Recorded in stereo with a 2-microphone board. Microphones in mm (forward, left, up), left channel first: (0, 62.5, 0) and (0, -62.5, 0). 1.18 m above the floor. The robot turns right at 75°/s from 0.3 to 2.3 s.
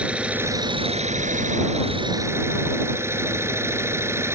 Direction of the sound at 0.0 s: 170° right.